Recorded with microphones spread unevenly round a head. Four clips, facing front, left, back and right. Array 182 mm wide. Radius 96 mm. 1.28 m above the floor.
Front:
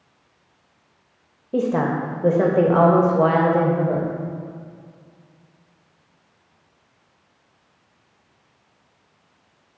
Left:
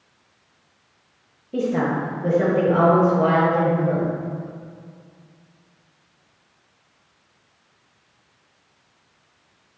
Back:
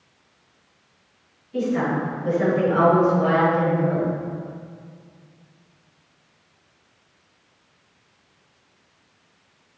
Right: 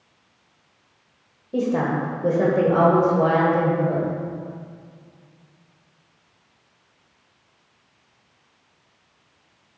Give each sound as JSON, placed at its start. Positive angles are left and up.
{"t": 1.5, "sound": "a woman speaking", "azimuth_deg": -5, "distance_m": 1.2}